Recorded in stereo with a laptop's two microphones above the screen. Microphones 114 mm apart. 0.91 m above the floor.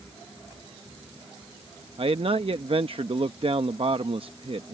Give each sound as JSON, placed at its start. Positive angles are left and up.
{"t": 2.0, "sound": "a man speaking", "side_deg": -55}